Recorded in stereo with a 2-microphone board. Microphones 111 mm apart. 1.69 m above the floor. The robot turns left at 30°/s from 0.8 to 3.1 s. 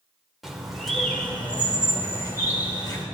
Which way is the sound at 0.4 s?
Straight behind.